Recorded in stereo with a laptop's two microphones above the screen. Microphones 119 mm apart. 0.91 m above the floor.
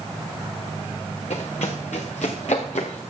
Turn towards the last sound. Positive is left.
turn(degrees=75)  # may be behind; listen again after turning